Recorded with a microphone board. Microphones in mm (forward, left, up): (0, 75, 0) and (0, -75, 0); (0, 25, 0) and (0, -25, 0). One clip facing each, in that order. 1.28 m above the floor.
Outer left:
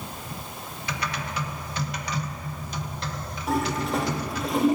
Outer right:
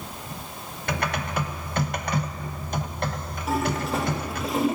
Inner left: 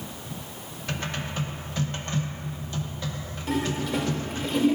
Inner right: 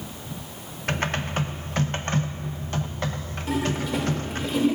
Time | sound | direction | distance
0.9 | typing on a keyboard | 50° right (ahead or behind) | 0.9 m
3.5 | a toilet flushing | centre (ahead or behind) | 2.5 m